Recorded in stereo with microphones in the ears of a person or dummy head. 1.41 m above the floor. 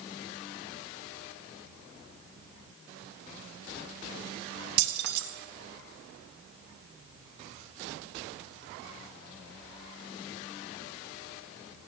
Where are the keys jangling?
55° right (ahead or behind), 1.4 m.